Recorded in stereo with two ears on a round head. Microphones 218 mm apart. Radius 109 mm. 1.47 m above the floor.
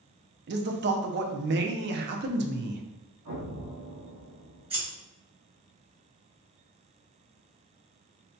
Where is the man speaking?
50° right (ahead or behind), 0.5 m.